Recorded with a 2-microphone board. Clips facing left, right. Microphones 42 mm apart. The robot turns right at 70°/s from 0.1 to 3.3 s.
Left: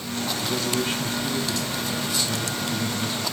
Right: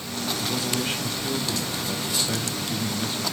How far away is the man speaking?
About 1.3 m.